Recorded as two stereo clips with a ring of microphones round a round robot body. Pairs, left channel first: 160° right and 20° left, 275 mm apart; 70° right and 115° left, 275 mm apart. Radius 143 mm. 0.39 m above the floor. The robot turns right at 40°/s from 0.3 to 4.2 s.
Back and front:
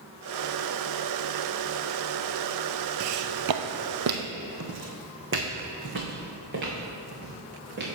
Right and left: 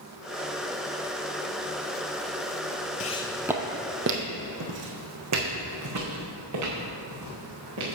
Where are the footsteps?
10° right, 0.5 m; by 7.9 s 80° left, 3.5 m.